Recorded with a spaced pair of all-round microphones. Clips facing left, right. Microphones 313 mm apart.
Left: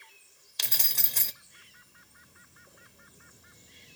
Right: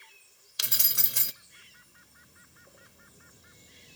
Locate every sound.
0.6 s keys jangling: 15° right (ahead or behind), 0.6 m